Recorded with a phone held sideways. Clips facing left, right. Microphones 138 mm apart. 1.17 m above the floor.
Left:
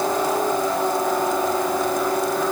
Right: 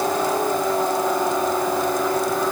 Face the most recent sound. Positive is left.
No sound to turn to.